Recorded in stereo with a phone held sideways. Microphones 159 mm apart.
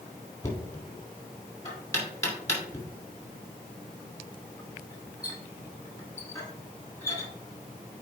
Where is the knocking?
20° left (ahead or behind), 2.5 m.